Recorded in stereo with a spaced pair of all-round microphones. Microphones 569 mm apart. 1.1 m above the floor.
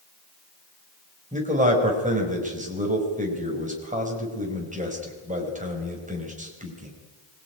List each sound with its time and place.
1.3 s a man speaking: 15° right (ahead or behind), 5 m